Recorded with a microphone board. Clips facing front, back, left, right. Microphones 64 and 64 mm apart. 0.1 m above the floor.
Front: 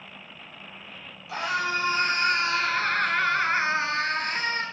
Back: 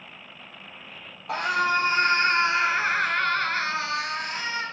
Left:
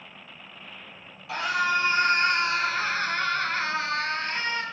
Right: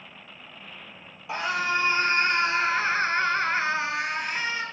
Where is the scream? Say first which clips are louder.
Back 4 dB, left 1 dB; 155° right, 2.5 m; by 4.6 s 10° right, 2.0 m.